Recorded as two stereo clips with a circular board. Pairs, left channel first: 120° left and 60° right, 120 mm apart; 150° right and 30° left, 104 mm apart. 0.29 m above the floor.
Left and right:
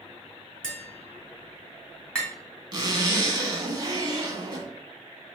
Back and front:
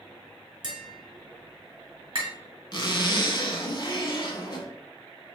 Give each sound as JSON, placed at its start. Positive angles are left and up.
{"t": 0.6, "sound": "tapping", "azimuth_deg": 40, "distance_m": 1.6}
{"t": 2.7, "sound": "a zipper", "azimuth_deg": -110, "distance_m": 0.9}